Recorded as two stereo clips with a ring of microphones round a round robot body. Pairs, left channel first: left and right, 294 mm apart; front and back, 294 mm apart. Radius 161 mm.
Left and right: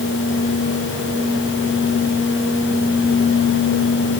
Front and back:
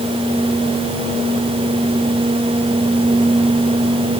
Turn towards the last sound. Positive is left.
No sound to turn to.